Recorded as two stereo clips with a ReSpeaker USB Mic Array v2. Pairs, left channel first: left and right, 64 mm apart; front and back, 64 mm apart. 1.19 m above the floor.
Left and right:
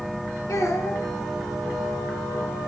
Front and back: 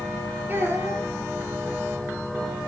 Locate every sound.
0.5 s a child speaking: 125° left, 3 m